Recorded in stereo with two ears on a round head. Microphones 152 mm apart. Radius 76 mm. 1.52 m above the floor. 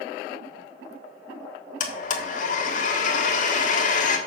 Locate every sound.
1.8 s a blender: 50° left (ahead or behind), 1.5 m